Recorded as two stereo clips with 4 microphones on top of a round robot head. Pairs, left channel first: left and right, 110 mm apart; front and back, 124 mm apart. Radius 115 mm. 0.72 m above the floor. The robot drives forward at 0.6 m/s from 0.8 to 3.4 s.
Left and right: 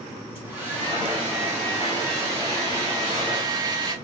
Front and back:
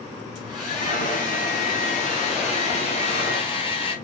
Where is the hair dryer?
20° right, 3 m; by 4.0 s 40° right, 1.8 m.